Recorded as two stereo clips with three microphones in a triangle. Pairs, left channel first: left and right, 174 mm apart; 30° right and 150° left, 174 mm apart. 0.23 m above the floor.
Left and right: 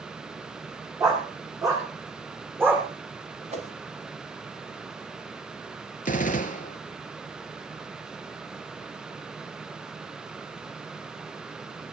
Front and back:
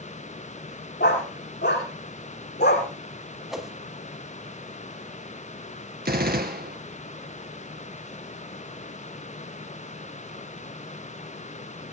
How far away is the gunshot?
About 1.4 m.